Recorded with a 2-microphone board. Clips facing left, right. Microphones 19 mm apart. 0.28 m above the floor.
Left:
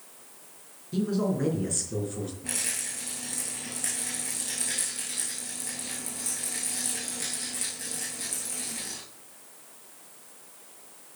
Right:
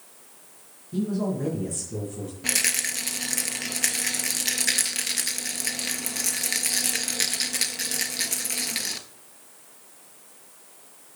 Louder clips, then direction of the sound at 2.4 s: Right 12 dB; 65° right (ahead or behind).